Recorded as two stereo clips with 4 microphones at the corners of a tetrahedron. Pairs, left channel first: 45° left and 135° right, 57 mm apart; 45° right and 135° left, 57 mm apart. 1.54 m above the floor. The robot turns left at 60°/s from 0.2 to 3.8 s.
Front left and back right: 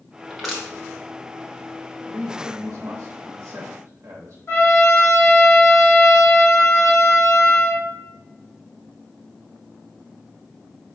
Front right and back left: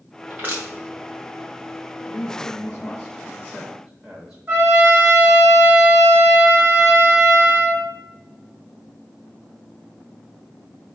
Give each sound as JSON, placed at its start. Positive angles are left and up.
{"t": 0.3, "sound": "crushing", "azimuth_deg": 150, "distance_m": 0.9}
{"t": 2.1, "sound": "a man speaking", "azimuth_deg": -55, "distance_m": 0.6}
{"t": 4.5, "sound": "a trumpet", "azimuth_deg": 85, "distance_m": 1.8}